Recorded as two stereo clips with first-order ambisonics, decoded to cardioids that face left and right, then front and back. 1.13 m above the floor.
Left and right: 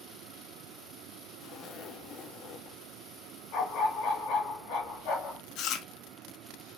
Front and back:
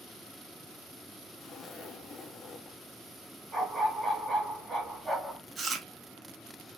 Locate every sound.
1.4 s a zipper: 55° left, 0.5 m
3.5 s a dog barking: 105° left, 2.5 m
5.6 s chewing: 115° left, 0.7 m